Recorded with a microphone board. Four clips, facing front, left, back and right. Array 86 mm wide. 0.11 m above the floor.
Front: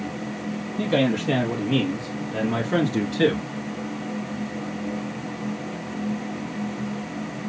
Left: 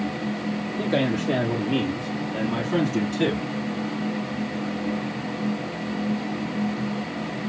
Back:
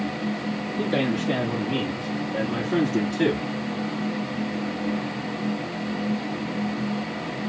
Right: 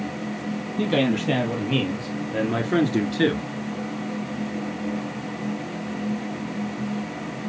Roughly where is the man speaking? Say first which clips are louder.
Right 2 dB, front 3 dB; right.